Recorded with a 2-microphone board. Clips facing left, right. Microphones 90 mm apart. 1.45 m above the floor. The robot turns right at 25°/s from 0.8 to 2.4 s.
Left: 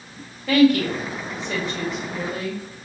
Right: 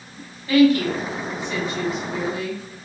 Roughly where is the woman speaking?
Left.